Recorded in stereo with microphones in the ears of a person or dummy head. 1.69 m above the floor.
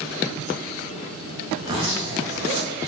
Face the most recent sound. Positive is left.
turn(degrees=-30)  # may be behind; listen again after turning